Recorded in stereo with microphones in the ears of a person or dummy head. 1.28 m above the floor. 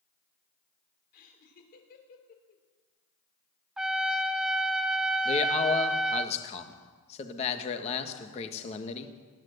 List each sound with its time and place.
1.1 s laughter: 50° left (ahead or behind), 3 m
3.8 s a trumpet: 5° right (ahead or behind), 0.6 m
5.2 s a man speaking: 35° left (ahead or behind), 1.5 m